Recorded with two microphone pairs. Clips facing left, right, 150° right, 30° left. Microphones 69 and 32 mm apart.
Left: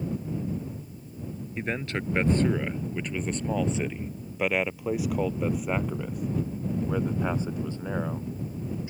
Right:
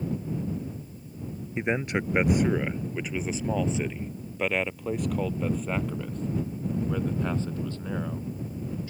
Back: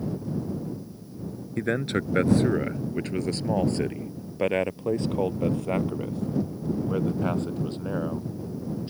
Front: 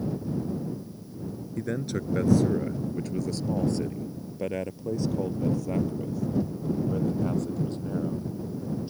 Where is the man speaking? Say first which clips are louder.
Right 4 dB, back 5 dB; 150° right; by 8.9 s 160° left.